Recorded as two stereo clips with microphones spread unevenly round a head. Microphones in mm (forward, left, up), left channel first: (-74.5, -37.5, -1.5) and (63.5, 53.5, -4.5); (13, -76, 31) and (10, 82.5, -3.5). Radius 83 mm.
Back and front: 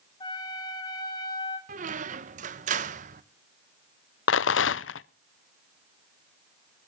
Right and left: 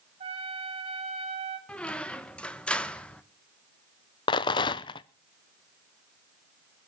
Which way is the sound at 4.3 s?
150° right.